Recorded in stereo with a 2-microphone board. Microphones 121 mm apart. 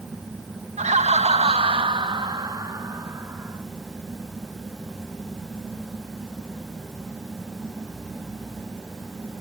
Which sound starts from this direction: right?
Laughter, at 0.8 s.